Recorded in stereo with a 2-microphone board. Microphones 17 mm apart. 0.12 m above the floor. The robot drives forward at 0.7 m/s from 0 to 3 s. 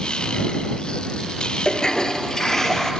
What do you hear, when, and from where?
1.6 s a toilet flushing: 35° left (ahead or behind), 1.2 m; by 2.9 s 25° left (ahead or behind), 1.8 m